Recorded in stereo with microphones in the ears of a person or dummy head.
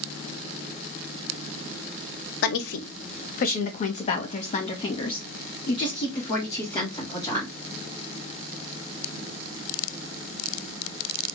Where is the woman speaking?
65° left (ahead or behind), 0.8 m; by 7.5 s 20° left (ahead or behind), 3 m.